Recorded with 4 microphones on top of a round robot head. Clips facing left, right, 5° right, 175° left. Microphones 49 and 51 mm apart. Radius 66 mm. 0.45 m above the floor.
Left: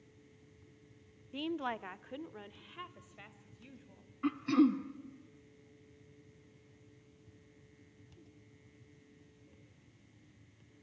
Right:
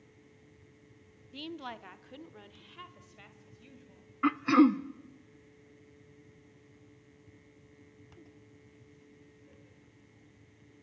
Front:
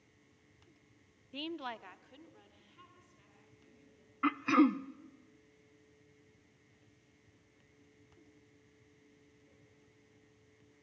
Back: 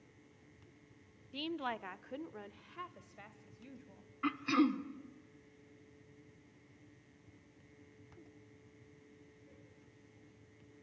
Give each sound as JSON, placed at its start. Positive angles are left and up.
{"t": 1.3, "sound": "a woman speaking", "azimuth_deg": 60, "distance_m": 0.8}
{"t": 4.2, "sound": "throat clearing", "azimuth_deg": -65, "distance_m": 0.7}